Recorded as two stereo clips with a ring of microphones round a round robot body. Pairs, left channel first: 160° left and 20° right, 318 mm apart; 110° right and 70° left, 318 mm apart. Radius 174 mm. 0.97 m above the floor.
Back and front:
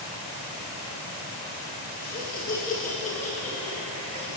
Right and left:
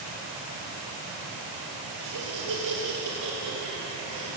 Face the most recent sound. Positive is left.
turn(degrees=85)